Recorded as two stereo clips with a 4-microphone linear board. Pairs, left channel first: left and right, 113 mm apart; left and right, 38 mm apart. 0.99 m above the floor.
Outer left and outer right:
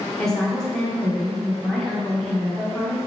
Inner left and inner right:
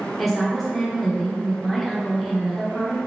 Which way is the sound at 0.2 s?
5° left (ahead or behind).